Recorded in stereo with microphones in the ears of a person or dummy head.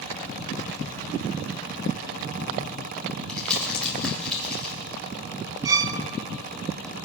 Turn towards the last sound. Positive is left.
turn(degrees=-20)  # may be behind; listen again after turning